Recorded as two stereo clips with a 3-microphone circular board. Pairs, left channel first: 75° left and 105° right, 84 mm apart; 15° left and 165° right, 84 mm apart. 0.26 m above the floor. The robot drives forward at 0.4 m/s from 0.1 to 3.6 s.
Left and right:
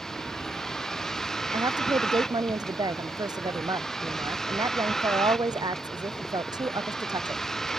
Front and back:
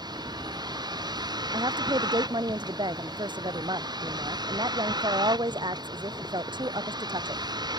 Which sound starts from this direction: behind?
A vehicle, at 0.0 s.